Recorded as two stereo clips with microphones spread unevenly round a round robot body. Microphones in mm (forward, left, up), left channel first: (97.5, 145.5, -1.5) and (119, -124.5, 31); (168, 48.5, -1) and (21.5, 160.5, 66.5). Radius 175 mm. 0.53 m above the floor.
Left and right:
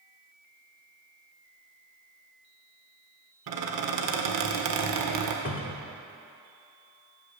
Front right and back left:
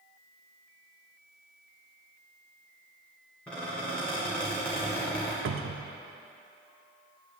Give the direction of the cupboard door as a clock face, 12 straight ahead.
8 o'clock.